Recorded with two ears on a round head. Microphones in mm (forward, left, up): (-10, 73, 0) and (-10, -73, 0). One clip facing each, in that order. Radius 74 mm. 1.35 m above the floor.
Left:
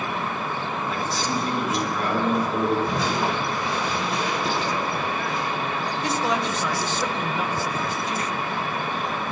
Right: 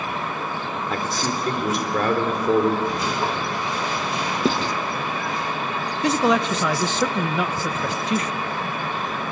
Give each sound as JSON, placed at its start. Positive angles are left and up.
{"t": 0.9, "sound": "a man speaking", "side_deg": -45, "distance_m": 3.5}
{"t": 2.9, "sound": "crushing", "side_deg": 70, "distance_m": 6.5}
{"t": 4.5, "sound": "writing", "side_deg": -70, "distance_m": 1.1}
{"t": 6.0, "sound": "a man speaking", "side_deg": -60, "distance_m": 0.9}